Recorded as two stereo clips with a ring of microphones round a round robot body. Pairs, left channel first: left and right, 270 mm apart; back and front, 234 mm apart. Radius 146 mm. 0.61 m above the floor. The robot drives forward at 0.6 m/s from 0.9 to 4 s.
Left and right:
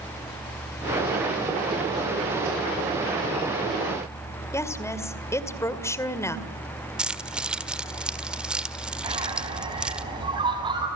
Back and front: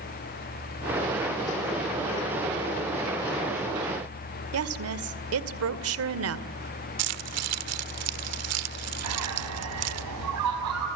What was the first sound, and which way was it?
A woman speaking, 10° left.